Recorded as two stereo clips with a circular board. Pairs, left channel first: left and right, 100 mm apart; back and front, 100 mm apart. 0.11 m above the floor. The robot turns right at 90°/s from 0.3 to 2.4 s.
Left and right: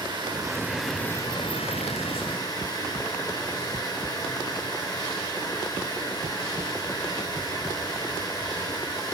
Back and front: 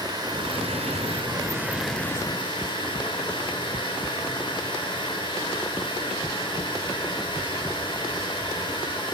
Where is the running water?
50° right, 4 m; by 9.2 s 140° left, 4 m.